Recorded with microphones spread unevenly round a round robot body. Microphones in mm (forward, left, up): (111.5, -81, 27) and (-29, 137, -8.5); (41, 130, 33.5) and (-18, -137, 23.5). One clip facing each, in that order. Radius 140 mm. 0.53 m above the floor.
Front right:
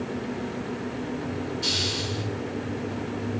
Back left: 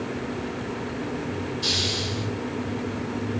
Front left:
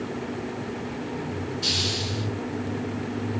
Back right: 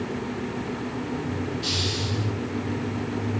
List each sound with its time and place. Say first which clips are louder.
1.6 s a hiss: back left 1 dB, back right 1 dB; 25° left, 6 m